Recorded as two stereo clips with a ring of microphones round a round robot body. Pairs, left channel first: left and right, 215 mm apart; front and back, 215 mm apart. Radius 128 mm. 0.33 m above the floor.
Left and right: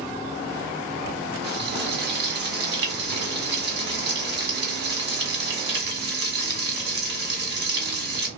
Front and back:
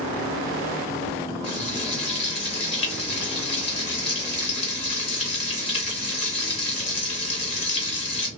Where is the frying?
60° right, 1.5 m.